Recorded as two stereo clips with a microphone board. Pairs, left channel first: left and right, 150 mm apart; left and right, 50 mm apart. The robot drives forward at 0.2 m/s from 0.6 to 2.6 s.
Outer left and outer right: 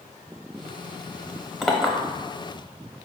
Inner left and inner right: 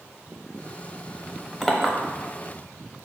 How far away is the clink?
About 0.7 m.